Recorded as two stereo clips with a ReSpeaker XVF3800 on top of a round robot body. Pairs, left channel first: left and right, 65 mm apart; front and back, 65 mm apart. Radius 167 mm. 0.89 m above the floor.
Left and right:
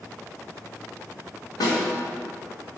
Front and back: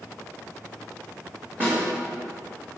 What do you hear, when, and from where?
1.6 s a snare drum: 115° left, 3.5 m